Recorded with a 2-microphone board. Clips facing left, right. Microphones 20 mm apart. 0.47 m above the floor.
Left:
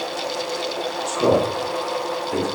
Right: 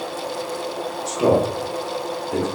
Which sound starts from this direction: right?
A man speaking, at 1.1 s.